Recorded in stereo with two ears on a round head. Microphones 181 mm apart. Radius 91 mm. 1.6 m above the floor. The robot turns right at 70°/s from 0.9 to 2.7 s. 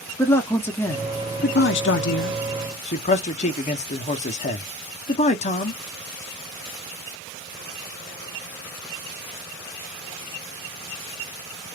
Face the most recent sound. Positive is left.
turn(degrees=140)